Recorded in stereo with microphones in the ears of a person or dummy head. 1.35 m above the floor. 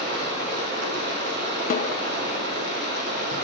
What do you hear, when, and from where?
0.0 s running water: 55° right (ahead or behind), 2.5 m
1.7 s a snare drum: 45° left (ahead or behind), 0.6 m